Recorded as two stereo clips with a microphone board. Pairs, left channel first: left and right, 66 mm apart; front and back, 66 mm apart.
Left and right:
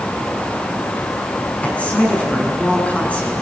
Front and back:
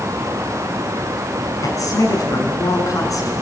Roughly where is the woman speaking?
Ahead.